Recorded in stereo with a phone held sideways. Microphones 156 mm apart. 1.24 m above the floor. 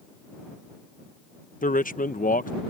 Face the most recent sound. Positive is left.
turn(degrees=60)  # may be behind; listen again after turning